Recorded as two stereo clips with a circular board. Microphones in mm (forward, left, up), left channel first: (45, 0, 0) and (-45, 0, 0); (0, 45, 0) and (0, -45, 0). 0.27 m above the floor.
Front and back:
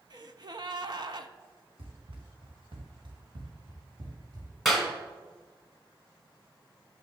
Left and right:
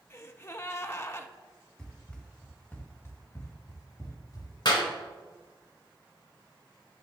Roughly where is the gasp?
Behind left.